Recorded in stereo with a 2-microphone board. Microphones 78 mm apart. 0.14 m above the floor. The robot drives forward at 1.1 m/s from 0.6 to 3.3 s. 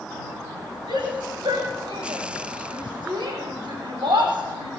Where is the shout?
75° right (ahead or behind), 7.5 m.